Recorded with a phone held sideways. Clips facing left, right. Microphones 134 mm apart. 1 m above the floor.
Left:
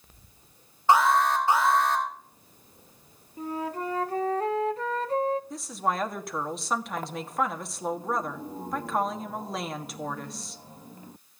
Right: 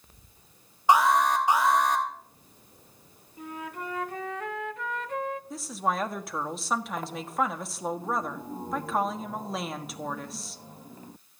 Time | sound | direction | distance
0.9 | an alarm | 15° right (ahead or behind) | 4 m
3.4 | a flute | 35° left (ahead or behind) | 0.6 m
5.5 | a woman speaking | centre (ahead or behind) | 1.5 m